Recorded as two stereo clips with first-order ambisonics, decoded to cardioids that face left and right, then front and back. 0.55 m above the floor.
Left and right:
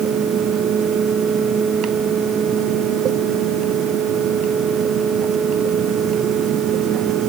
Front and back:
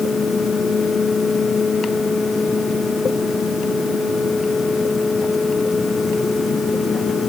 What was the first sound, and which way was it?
Only background noise.